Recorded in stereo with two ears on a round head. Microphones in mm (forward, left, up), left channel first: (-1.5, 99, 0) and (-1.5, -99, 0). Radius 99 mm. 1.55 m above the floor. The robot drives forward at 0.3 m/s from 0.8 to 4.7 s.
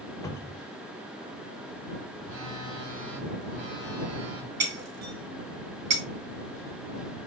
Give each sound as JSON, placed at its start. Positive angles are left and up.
{"t": 0.2, "sound": "a cupboard door", "side_deg": 15, "distance_m": 0.8}
{"t": 2.2, "sound": "a phone buzzing", "side_deg": -65, "distance_m": 1.6}
{"t": 4.6, "sound": "breaking glass", "side_deg": -75, "distance_m": 3.5}